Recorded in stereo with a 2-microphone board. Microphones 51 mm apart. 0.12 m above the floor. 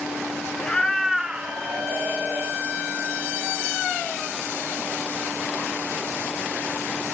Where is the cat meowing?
20° left (ahead or behind), 0.7 m; by 2.6 s 50° right (ahead or behind), 1.2 m.